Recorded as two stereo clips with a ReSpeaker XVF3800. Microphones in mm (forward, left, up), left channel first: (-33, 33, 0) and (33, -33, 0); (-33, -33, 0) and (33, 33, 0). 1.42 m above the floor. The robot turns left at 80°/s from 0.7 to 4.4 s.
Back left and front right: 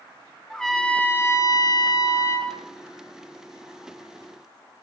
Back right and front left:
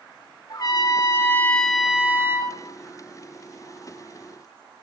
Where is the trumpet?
145° right, 1.6 m; by 2.5 s 70° left, 1.6 m.